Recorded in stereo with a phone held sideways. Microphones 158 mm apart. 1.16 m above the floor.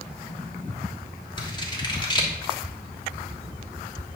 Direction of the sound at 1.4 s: 25° left (ahead or behind).